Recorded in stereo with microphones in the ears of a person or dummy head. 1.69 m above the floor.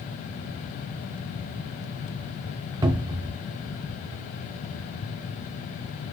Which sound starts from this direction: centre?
A cupboard door, at 2.8 s.